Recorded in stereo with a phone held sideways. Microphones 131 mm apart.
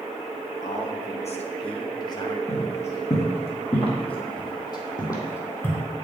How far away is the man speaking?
About 1.2 m.